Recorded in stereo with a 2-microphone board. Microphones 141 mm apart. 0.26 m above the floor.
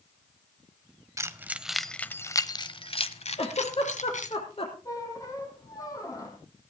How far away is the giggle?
About 4 m.